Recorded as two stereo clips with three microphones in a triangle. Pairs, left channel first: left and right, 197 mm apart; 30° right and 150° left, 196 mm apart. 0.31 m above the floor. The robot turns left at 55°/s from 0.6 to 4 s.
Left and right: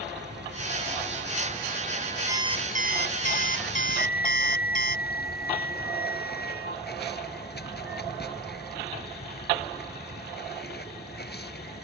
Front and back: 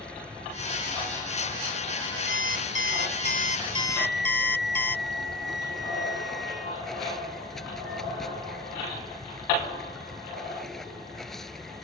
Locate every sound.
0.0 s running water: 115° right; by 11.8 s 60° left
2.3 s an alarm clock: 15° right; by 5.0 s 110° right
4.0 s a flute: 130° left